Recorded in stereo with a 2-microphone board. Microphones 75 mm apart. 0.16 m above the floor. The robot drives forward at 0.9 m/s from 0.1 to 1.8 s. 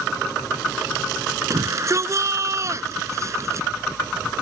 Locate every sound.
1.5 s a shout: 45° right (ahead or behind)